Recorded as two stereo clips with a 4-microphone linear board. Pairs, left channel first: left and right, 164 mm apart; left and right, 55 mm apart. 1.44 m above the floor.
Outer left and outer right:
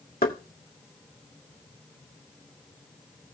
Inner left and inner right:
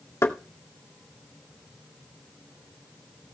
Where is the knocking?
75° left (ahead or behind), 2 m.